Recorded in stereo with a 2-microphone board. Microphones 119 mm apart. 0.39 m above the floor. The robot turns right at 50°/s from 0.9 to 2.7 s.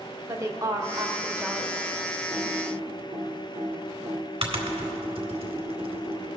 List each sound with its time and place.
0.3 s a woman speaking: 45° right, 1.0 m; by 1.8 s straight ahead, 1.0 m
2.3 s typing on a keyboard: 40° right (ahead or behind), 1.8 m; by 6.3 s 50° right (ahead or behind), 1.8 m